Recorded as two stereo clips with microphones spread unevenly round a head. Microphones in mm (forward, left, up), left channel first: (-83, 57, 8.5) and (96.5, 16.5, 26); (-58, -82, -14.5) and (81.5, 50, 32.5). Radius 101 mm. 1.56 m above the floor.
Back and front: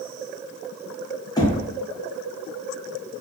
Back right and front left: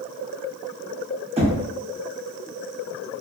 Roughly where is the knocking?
Left.